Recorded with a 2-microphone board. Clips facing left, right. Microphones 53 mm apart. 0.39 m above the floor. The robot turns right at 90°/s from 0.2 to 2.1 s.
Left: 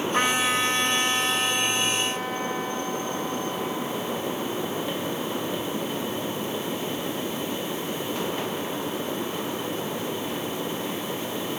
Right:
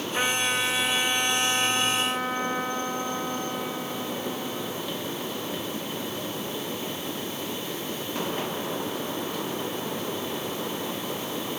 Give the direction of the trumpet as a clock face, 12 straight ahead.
10 o'clock.